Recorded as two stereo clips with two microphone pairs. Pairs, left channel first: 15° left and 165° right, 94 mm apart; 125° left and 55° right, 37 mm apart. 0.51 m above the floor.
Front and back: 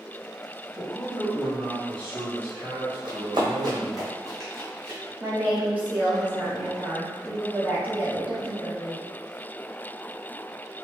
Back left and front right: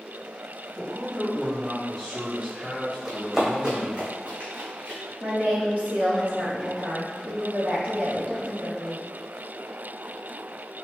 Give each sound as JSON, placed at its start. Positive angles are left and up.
{"t": 0.8, "sound": "a man speaking", "azimuth_deg": -50, "distance_m": 1.4}
{"t": 3.0, "sound": "running footsteps", "azimuth_deg": -140, "distance_m": 1.2}
{"t": 5.2, "sound": "a woman speaking", "azimuth_deg": -95, "distance_m": 1.3}